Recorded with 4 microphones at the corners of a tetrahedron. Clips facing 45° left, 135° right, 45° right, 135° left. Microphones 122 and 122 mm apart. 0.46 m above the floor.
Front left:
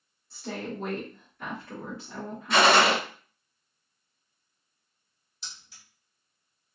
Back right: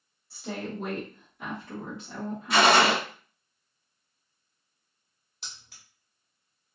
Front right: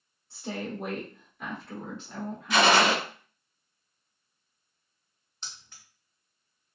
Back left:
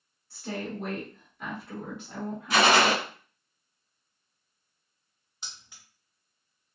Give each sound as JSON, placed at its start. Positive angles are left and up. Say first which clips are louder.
{"t": 0.3, "sound": "a woman speaking", "louder": "even, even", "azimuth_deg": -55, "distance_m": 1.3}
{"t": 2.5, "sound": "a gunshot", "louder": "even, even", "azimuth_deg": 140, "distance_m": 1.7}
{"t": 5.4, "sound": "keys jangling", "louder": "back right 1 dB, front right 1 dB", "azimuth_deg": -145, "distance_m": 1.2}